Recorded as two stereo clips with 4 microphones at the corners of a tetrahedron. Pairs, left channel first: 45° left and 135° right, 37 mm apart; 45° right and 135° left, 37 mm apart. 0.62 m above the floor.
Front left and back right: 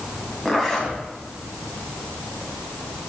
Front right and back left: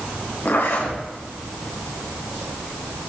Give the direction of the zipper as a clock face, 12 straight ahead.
1 o'clock.